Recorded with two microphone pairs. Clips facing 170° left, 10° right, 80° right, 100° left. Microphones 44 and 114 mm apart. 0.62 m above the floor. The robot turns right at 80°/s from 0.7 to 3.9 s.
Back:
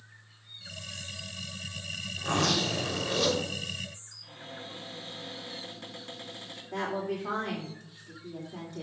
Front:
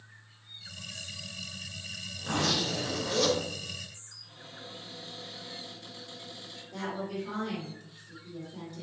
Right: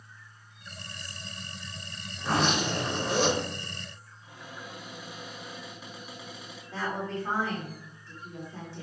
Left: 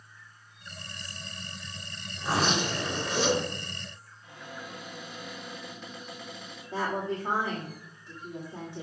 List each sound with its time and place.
2.2 s a zipper: 165° left, 3 m; by 3.5 s 90° right, 3 m
4.2 s a cupboard door: 160° right, 4 m
6.7 s a woman speaking: 165° left, 2.0 m